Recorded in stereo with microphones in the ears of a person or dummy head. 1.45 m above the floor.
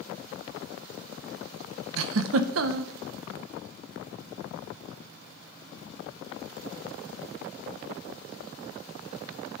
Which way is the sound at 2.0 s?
70° right (ahead or behind).